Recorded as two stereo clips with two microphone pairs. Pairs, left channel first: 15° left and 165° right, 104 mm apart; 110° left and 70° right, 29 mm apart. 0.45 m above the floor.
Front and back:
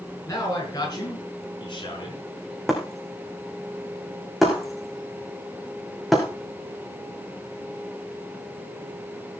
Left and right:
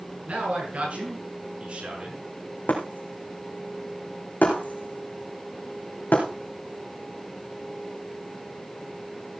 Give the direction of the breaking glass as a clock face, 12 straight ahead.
8 o'clock.